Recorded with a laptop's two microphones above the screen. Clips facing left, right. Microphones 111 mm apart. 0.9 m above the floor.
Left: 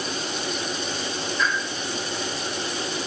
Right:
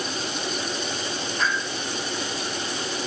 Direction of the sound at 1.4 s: 60° right (ahead or behind).